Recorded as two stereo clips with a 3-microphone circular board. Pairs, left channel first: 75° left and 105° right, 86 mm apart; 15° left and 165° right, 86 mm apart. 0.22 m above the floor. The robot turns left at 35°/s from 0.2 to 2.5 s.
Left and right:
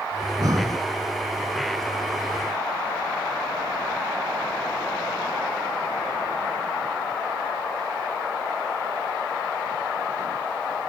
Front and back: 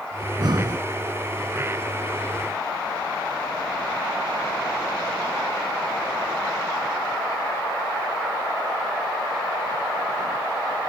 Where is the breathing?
135° right, 0.8 m; by 0.8 s 155° right, 0.8 m.